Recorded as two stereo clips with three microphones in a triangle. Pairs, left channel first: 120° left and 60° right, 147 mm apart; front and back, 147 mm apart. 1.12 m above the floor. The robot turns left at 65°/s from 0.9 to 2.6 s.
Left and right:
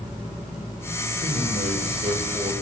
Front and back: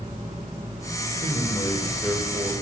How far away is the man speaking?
About 4 m.